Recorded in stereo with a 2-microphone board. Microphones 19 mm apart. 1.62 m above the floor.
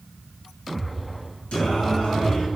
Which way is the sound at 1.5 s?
55° left (ahead or behind).